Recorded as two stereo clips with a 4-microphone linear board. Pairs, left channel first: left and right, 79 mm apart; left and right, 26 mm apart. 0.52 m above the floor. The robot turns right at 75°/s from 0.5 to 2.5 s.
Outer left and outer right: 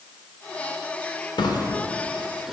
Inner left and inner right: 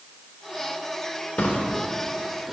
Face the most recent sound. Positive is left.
turn(degrees=-5)  # may be behind; listen again after turning